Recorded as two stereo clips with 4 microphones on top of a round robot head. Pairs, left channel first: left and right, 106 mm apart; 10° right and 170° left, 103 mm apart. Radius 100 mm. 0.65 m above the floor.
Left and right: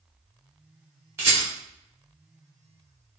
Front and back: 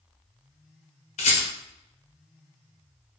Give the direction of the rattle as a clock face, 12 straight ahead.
1 o'clock.